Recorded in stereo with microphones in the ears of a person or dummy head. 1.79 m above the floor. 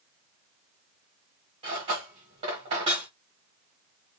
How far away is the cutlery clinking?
About 1.3 m.